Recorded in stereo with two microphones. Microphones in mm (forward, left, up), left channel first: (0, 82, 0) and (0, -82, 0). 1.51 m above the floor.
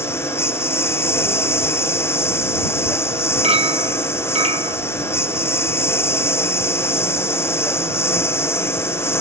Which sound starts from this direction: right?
A clink, at 3.4 s.